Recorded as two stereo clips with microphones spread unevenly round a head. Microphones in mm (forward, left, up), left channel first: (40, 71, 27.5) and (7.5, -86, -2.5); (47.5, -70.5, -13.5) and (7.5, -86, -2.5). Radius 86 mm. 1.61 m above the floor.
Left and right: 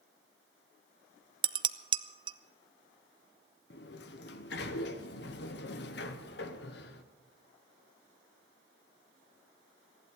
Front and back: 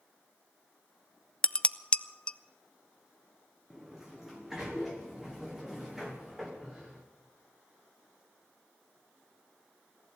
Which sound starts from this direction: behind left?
A sliding door, at 3.7 s.